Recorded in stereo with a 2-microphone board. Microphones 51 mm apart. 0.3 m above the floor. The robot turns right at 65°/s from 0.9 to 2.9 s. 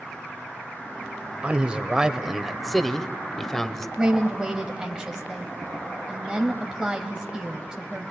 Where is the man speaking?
25° right (ahead or behind), 0.9 m; by 3.9 s 10° left (ahead or behind), 0.9 m.